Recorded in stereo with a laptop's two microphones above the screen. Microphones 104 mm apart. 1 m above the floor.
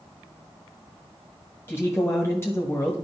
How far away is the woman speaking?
About 1.2 m.